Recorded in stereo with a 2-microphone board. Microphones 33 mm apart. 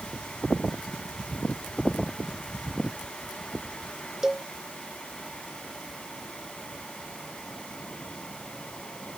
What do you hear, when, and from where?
4.2 s a cowbell: 15° right (ahead or behind)